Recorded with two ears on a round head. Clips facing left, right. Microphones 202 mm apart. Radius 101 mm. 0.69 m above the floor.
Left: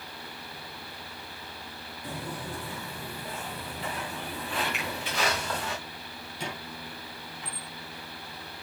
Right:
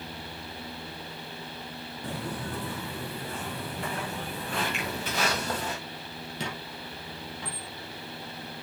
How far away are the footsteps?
About 3 m.